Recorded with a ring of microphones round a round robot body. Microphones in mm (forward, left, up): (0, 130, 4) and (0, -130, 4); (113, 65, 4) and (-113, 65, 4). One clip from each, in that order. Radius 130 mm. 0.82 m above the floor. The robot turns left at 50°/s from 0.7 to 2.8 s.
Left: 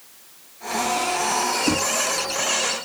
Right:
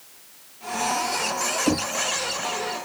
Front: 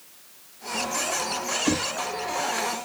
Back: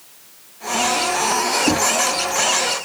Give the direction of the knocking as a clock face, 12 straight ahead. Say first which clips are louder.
Left 2 dB, back 8 dB; 5 o'clock.